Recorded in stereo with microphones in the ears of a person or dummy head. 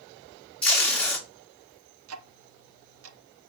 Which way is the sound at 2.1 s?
80° right.